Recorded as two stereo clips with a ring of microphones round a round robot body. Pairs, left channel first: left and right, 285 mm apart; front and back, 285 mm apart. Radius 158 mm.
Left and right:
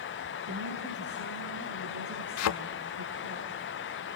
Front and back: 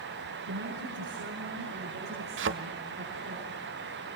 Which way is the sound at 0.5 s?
135° right.